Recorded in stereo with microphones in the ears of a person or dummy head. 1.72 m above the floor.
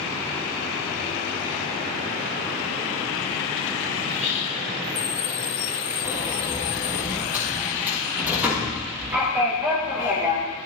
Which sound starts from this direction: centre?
A sliding door, at 6.0 s.